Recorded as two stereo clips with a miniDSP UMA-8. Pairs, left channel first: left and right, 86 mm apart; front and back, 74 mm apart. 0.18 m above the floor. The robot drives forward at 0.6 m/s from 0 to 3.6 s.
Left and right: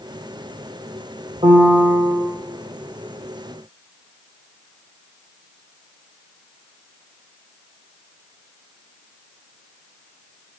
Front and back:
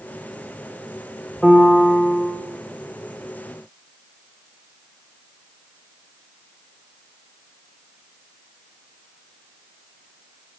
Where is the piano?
85° right, 3 m; by 2.3 s 95° right, 3 m.